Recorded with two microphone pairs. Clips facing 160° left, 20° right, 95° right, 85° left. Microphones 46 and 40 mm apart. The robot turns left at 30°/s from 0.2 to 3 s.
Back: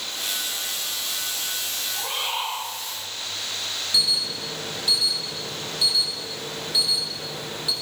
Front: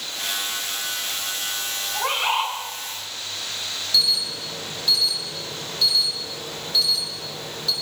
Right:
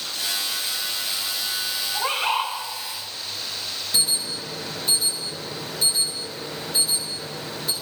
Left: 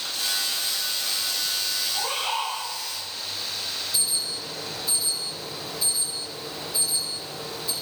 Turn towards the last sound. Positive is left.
turn(degrees=-125)